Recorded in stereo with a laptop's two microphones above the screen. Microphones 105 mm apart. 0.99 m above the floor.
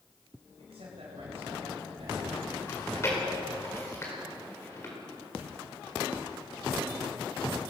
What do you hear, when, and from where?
0.6 s a man speaking: 75° right (ahead or behind), 4.5 m
2.7 s chewing: 30° left (ahead or behind), 4.5 m